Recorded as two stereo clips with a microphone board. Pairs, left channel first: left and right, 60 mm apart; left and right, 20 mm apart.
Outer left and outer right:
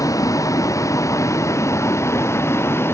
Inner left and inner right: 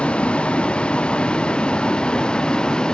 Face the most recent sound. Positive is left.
turn(degrees=45)  # may be behind; listen again after turning